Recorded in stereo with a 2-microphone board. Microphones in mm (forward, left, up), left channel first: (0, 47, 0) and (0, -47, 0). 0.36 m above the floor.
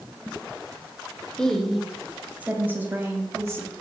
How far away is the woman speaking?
About 0.9 m.